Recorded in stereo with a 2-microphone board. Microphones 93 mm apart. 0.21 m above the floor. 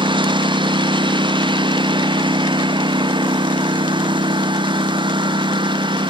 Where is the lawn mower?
60° right (ahead or behind).